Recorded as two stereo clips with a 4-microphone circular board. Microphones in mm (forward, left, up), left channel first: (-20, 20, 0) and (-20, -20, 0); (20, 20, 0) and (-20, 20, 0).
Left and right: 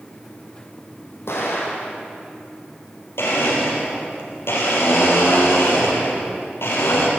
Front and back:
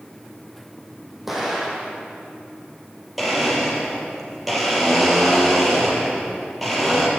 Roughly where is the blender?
Left.